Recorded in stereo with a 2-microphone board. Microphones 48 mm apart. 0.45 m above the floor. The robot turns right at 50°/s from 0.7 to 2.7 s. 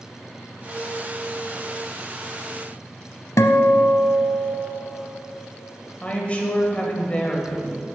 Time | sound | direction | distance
3.4 | a guitar | 85° left | 0.7 m
6.0 | a woman speaking | 25° left (ahead or behind) | 1.9 m